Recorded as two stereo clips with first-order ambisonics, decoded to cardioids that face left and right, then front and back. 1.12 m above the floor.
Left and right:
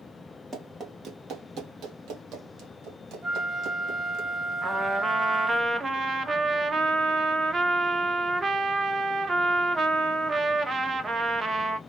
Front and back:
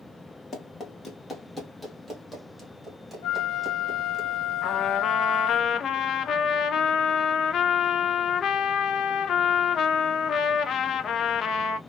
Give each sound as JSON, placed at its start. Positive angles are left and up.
{"t": 0.5, "sound": "running footsteps", "azimuth_deg": -45, "distance_m": 1.2}
{"t": 3.2, "sound": "a flute", "azimuth_deg": -25, "distance_m": 1.2}
{"t": 4.6, "sound": "a trumpet", "azimuth_deg": -35, "distance_m": 0.5}